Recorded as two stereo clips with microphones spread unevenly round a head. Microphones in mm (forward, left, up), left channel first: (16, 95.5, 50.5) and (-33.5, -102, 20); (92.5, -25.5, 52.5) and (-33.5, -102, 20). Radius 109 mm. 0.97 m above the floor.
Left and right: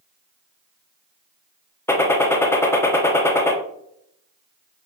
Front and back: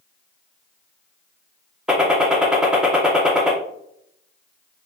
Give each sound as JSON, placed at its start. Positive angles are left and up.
{"t": 1.9, "sound": "a gunshot", "azimuth_deg": 160, "distance_m": 0.7}